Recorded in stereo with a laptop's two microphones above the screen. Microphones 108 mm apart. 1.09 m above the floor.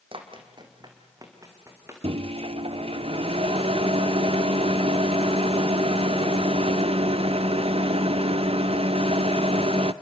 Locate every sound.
0.1 s running footsteps: 55° right (ahead or behind), 2.5 m; by 1.9 s 25° right (ahead or behind), 4 m
2.0 s a microwave: 65° right (ahead or behind), 0.7 m